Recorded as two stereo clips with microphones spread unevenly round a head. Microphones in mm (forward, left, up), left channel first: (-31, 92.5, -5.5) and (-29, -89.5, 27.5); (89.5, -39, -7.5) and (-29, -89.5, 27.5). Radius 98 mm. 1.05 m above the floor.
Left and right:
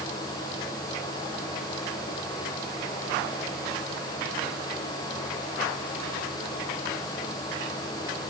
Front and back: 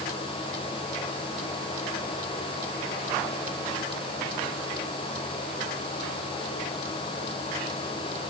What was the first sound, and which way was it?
Only background noise.